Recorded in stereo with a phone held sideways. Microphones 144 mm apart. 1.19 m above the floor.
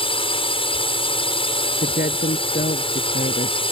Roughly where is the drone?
Left.